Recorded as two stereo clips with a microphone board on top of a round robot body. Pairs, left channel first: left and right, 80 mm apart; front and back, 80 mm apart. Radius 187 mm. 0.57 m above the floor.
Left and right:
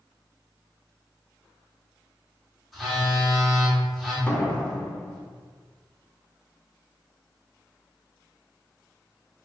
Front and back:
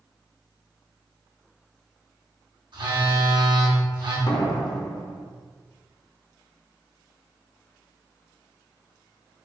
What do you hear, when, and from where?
2.7 s a phone buzzing: straight behind, 1.7 m
4.3 s a door slam: 20° left, 1.1 m